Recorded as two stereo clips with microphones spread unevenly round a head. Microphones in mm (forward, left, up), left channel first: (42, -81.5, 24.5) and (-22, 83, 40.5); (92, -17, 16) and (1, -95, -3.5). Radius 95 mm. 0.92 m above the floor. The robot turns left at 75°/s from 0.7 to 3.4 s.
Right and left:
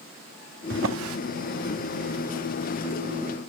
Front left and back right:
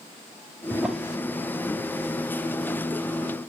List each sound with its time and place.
0.7 s a drawer: 145° left, 0.7 m; by 1.2 s 110° left, 0.7 m